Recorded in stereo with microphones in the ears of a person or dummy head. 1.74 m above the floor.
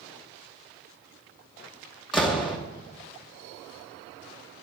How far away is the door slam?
About 1.2 m.